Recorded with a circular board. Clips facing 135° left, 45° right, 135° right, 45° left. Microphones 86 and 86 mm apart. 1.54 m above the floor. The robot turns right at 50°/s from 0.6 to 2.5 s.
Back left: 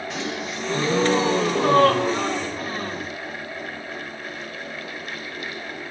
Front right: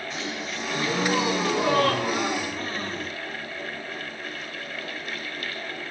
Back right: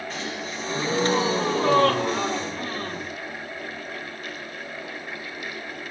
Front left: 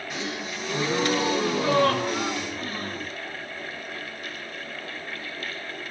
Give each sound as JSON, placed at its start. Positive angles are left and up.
{"t": 0.1, "sound": "a gasp", "azimuth_deg": 120, "distance_m": 1.4}